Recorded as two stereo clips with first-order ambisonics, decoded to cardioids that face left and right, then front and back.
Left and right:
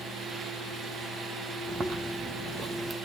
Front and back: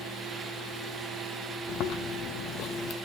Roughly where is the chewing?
Ahead.